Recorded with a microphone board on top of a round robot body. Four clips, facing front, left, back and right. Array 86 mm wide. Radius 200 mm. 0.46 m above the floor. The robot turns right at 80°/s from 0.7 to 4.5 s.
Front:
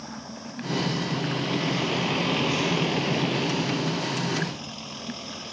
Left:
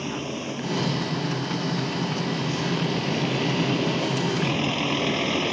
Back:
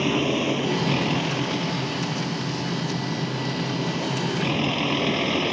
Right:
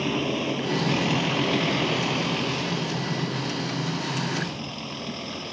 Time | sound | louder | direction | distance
0.0 | a vehicle | right 4 dB, back 16 dB | 160° right | ?